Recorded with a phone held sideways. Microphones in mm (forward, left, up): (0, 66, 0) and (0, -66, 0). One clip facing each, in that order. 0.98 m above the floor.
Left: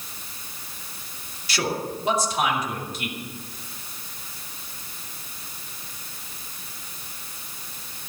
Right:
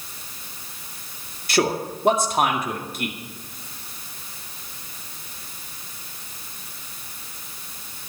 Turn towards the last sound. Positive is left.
turn(degrees=-50)  # may be behind; listen again after turning